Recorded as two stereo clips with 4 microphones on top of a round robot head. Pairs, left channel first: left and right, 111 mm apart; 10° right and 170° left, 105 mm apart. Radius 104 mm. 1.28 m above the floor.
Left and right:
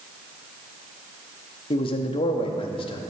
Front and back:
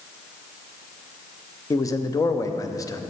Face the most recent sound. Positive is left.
turn(degrees=50)